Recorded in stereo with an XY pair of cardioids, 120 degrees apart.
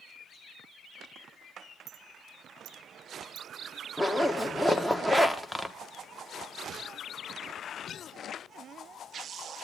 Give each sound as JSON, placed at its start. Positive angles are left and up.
{"t": 1.9, "sound": "a clink", "azimuth_deg": -60, "distance_m": 0.9}
{"t": 4.0, "sound": "a zipper", "azimuth_deg": 0, "distance_m": 1.4}